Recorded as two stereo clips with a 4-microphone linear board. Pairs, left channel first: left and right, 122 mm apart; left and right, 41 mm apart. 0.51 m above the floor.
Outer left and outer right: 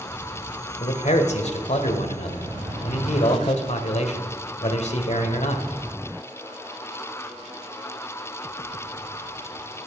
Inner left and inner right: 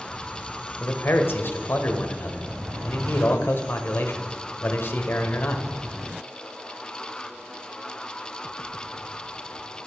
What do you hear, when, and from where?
0.8 s a man speaking: 65° left (ahead or behind), 1.7 m